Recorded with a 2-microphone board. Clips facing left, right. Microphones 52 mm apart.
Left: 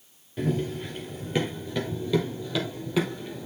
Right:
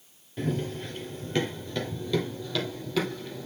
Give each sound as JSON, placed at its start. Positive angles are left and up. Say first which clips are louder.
{"t": 0.4, "sound": "running footsteps", "louder": "left 3 dB", "side_deg": 5, "distance_m": 2.0}